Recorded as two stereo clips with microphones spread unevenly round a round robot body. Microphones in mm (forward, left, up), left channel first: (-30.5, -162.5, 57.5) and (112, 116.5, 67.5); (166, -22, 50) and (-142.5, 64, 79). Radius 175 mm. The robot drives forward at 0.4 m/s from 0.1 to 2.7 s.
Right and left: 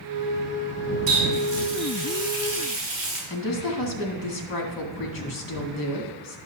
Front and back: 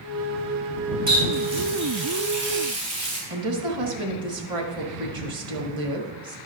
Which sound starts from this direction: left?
A running tap, at 1.1 s.